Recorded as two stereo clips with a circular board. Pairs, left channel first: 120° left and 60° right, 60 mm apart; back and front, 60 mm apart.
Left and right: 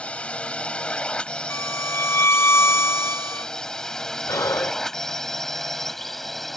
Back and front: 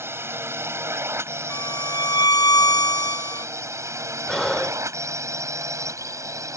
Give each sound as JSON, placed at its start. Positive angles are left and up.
{"t": 0.0, "sound": "a drone", "azimuth_deg": 50}
{"t": 1.5, "sound": "a violin", "azimuth_deg": 170}
{"t": 4.3, "sound": "breathing", "azimuth_deg": 90}